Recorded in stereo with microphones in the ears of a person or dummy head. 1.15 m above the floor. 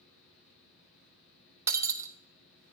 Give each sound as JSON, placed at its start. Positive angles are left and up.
{"t": 0.0, "sound": "a fan", "side_deg": 60, "distance_m": 4.0}
{"t": 1.7, "sound": "breaking glass", "side_deg": -20, "distance_m": 0.5}